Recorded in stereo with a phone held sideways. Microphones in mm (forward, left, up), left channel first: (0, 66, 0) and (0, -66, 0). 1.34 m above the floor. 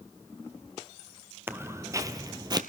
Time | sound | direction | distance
1.5 | footsteps | 15° right (ahead or behind) | 1.4 m